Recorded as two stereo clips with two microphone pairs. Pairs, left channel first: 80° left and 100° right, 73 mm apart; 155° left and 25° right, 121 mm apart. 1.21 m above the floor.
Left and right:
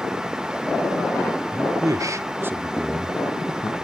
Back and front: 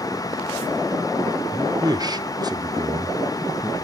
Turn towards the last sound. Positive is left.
turn(degrees=55)